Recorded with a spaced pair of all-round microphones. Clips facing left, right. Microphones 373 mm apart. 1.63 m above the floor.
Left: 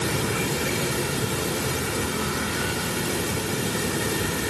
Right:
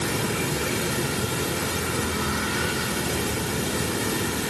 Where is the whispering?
No whispering in this recording.